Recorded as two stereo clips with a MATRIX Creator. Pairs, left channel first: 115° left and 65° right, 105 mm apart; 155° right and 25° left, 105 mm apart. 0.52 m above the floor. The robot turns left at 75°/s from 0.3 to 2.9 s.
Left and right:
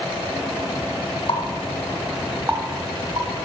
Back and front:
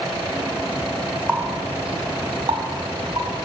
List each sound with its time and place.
1.3 s a running tap: 95° left, 2 m; by 3.3 s 25° right, 2 m